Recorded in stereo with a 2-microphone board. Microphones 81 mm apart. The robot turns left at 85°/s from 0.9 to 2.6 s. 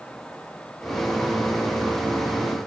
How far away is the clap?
No clap in this recording.